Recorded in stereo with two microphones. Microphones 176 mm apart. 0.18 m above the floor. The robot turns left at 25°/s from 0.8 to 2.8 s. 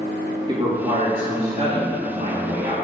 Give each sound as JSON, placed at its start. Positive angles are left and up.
{"t": 0.5, "sound": "a man speaking", "azimuth_deg": -40, "distance_m": 2.0}